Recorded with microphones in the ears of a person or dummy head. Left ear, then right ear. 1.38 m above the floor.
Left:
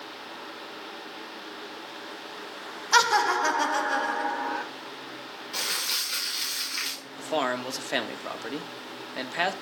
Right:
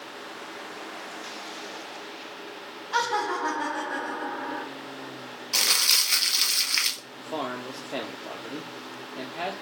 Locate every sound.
2.9 s laughter: 75° left (ahead or behind), 1.3 m; by 4.7 s 40° left (ahead or behind), 1.7 m
5.5 s crumpling: 35° right (ahead or behind), 1.4 m
7.2 s a man speaking: 60° left (ahead or behind), 1.0 m